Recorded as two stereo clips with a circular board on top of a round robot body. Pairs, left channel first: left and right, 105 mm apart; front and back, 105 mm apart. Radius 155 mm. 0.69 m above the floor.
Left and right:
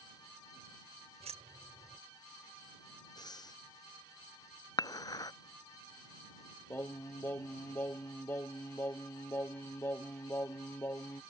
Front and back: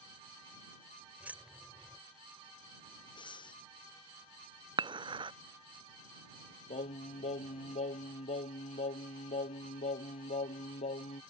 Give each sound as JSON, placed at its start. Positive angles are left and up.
{"t": 1.2, "sound": "keys jangling", "azimuth_deg": -105}
{"t": 3.2, "sound": "breathing", "azimuth_deg": 40}
{"t": 4.8, "sound": "dishes clattering", "azimuth_deg": 140}
{"t": 6.7, "sound": "singing", "azimuth_deg": 20}